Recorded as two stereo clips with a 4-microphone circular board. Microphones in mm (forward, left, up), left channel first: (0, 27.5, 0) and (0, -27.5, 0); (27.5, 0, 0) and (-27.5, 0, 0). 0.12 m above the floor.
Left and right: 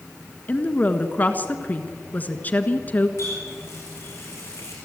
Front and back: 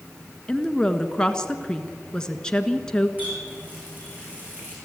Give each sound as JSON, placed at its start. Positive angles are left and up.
{"t": 0.5, "sound": "a woman speaking", "azimuth_deg": 65, "distance_m": 1.3}
{"t": 3.2, "sound": "a running tap", "azimuth_deg": 120, "distance_m": 6.0}